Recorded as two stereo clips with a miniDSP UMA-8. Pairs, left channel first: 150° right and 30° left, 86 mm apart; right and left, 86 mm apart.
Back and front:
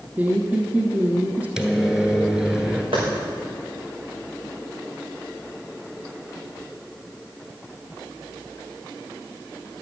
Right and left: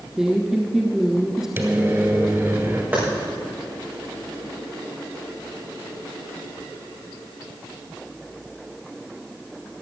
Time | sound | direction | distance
0.2 | a woman speaking | 20° left | 1.3 m
1.6 | a microwave | 105° left | 1.6 m
2.9 | a clap | 25° left | 5.5 m